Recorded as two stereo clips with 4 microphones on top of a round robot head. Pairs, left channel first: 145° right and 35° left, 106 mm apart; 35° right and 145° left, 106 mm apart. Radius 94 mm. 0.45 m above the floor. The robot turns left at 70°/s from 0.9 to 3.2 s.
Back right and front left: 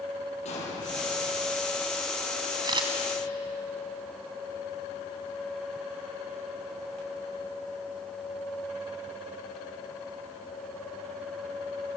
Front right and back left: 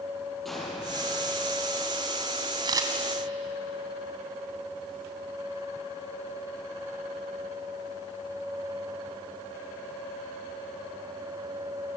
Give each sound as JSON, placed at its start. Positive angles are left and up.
{"t": 0.5, "sound": "an explosion", "azimuth_deg": -125, "distance_m": 7.0}
{"t": 2.6, "sound": "a camera shutter", "azimuth_deg": 95, "distance_m": 2.5}